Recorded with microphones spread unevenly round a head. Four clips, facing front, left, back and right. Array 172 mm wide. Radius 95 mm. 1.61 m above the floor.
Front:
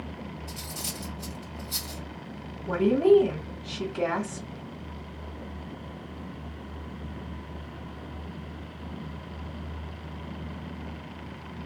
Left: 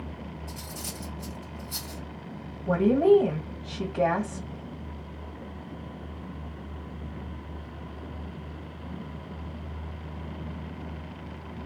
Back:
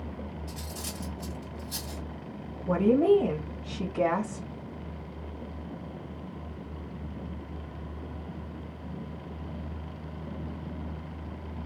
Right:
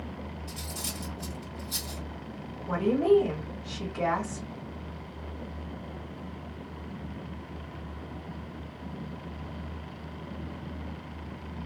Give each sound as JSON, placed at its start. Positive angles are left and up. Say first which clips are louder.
{"t": 0.5, "sound": "cutlery clinking", "louder": "even, front 1 dB", "azimuth_deg": 155, "distance_m": 1.5}
{"t": 2.7, "sound": "a woman speaking", "louder": "left 4 dB, front 2 dB", "azimuth_deg": 120, "distance_m": 1.9}